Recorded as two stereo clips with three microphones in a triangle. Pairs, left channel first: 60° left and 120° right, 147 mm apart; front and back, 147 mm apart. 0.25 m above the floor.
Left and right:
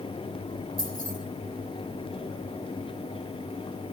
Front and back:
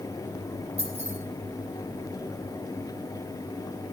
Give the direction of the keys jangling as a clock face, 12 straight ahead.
5 o'clock.